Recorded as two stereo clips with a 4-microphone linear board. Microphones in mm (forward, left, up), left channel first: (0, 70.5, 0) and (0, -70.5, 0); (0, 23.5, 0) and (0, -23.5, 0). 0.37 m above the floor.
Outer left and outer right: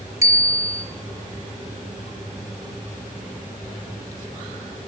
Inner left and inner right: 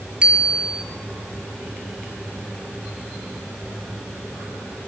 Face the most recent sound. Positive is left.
turn(degrees=-20)  # may be behind; listen again after turning